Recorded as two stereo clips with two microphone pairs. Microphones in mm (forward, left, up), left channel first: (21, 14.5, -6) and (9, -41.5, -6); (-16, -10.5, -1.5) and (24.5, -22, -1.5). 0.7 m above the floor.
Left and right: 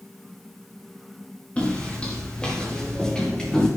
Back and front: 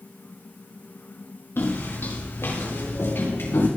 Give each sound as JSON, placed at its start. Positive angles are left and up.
{"t": 1.6, "sound": "footsteps", "azimuth_deg": 145, "distance_m": 6.0}